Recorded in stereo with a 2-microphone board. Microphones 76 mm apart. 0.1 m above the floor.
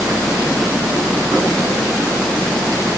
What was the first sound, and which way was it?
Only background noise.